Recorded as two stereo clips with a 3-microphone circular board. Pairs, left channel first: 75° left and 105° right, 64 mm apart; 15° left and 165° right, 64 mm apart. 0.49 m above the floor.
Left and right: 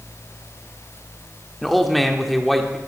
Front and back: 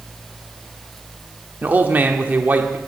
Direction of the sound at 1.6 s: 165° left.